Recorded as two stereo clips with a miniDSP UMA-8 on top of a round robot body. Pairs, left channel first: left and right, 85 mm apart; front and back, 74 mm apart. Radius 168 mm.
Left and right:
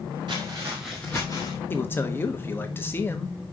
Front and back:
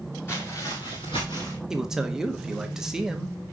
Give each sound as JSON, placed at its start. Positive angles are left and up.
{"t": 0.3, "sound": "footsteps", "azimuth_deg": -55, "distance_m": 0.8}
{"t": 1.7, "sound": "a man speaking", "azimuth_deg": 110, "distance_m": 1.0}